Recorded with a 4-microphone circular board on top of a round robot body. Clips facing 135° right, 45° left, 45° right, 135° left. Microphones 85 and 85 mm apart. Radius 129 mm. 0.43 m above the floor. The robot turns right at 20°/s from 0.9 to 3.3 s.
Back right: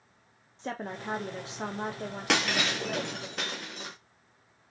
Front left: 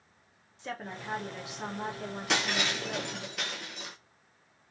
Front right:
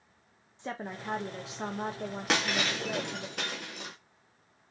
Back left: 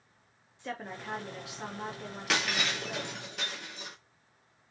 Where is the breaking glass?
100° right, 0.6 m; by 4.0 s 80° right, 0.6 m.